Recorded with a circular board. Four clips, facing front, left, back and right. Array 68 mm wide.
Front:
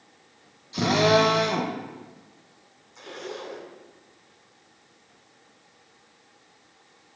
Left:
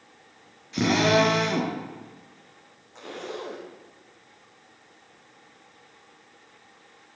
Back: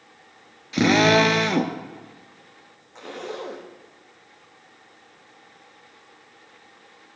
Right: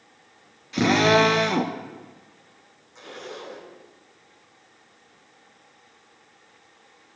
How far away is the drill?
About 1.7 m.